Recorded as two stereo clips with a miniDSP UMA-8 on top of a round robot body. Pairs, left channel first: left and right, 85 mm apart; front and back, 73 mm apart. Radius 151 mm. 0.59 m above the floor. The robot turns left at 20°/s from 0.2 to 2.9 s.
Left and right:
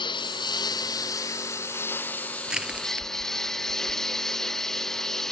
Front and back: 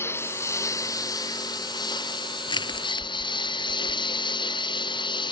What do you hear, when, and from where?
0.0 s a lawn mower: 60° left; by 5.3 s 5° left
2.5 s crushing: 10° right; by 4.2 s 15° right